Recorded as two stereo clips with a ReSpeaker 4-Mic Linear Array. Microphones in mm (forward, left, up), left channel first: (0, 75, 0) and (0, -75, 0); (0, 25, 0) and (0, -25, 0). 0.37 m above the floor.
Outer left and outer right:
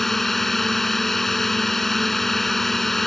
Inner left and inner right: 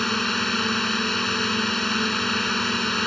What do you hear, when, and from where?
0.0 s a drone: centre (ahead or behind)